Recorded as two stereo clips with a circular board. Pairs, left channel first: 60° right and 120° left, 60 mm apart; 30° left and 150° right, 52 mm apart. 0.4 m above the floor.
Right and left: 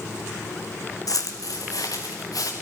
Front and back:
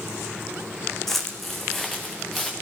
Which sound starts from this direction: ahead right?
Footsteps, at 1.1 s.